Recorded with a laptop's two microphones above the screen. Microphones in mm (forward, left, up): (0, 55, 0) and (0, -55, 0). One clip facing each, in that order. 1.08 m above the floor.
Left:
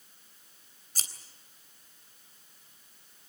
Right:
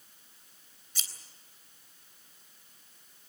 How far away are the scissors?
About 3.5 m.